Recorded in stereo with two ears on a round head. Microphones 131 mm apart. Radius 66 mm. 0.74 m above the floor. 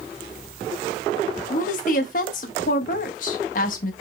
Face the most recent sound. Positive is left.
turn(degrees=60)  # may be behind; listen again after turning